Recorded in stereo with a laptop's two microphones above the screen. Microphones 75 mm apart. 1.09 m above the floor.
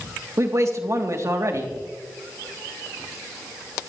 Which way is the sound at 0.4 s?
45° right (ahead or behind).